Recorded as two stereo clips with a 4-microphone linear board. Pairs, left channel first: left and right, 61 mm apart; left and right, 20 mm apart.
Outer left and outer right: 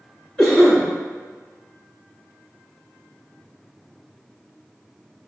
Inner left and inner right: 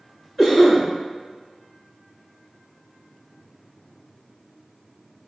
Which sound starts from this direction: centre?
A cough, at 0.4 s.